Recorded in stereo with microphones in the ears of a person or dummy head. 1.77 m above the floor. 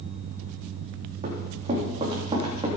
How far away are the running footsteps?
About 3.5 m.